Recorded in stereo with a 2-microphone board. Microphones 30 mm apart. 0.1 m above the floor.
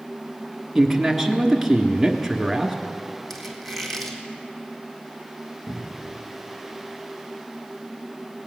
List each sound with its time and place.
0.8 s a man speaking: 5° right (ahead or behind), 1.4 m
3.3 s a squeak: 10° left (ahead or behind), 1.9 m
5.7 s a cupboard door: 40° left (ahead or behind), 2 m